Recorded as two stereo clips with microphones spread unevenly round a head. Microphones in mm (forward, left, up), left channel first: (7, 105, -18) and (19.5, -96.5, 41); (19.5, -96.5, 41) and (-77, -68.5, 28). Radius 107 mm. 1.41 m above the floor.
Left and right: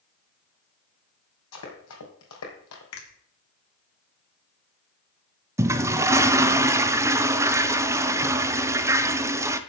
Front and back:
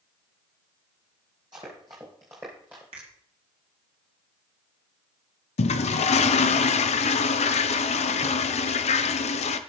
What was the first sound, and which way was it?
Running footsteps, 90° left.